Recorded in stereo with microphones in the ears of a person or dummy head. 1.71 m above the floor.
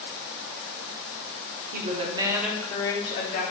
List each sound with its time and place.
1.7 s a woman speaking: 45° right (ahead or behind), 0.9 m; by 3.4 s 45° left (ahead or behind), 1.1 m